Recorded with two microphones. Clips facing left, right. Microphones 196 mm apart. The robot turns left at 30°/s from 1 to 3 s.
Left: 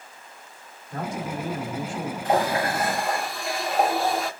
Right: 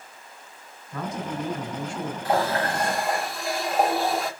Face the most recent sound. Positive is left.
turn(degrees=0)  # may be behind; listen again after turning